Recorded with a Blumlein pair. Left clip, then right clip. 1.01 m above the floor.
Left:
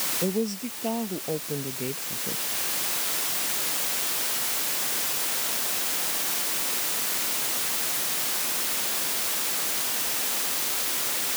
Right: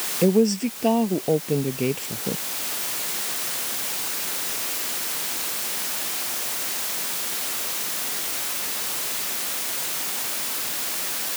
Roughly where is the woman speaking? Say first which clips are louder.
Right 13 dB; ahead right.